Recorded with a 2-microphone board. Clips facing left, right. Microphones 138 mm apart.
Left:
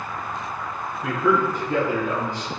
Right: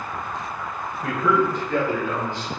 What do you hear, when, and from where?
1.0 s a man speaking: 5° right (ahead or behind), 1.2 m; by 2.5 s 45° left (ahead or behind), 1.5 m